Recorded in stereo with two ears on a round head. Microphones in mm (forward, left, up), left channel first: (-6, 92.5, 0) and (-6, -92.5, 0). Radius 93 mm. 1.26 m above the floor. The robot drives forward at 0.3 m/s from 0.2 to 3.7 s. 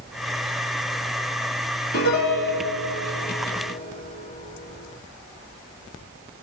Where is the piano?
55° left (ahead or behind), 3 m; by 5.0 s 45° left (ahead or behind), 3.5 m.